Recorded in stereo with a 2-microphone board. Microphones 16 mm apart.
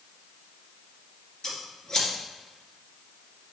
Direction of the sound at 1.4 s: 40° left (ahead or behind).